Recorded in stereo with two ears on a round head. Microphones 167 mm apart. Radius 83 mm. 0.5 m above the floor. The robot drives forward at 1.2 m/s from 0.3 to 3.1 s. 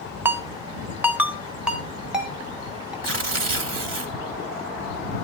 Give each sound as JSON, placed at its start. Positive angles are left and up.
{"t": 0.2, "sound": "a ringtone", "side_deg": -10, "distance_m": 0.7}
{"t": 3.0, "sound": "tearing paper", "side_deg": -75, "distance_m": 2.0}